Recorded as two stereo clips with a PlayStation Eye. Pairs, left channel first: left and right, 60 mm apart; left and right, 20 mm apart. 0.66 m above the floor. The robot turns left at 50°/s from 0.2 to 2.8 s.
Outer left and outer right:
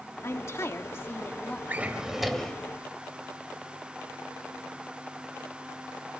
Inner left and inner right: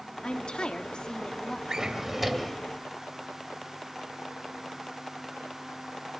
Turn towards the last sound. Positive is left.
turn(degrees=155)